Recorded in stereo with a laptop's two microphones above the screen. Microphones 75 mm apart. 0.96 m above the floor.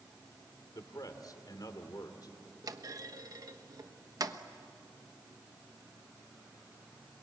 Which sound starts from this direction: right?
A clunk, at 2.6 s.